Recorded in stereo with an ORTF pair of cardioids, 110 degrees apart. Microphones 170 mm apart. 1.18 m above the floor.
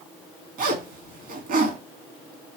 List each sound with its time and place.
0.6 s a zipper: 65° right, 2 m